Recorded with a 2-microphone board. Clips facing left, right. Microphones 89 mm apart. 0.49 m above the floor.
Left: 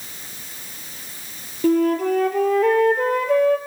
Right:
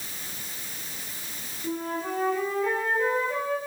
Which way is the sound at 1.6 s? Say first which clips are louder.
Left 13 dB; 70° left (ahead or behind).